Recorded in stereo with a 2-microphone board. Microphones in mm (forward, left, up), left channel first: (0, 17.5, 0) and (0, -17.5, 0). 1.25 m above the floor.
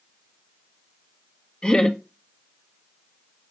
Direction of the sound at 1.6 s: 25° left (ahead or behind).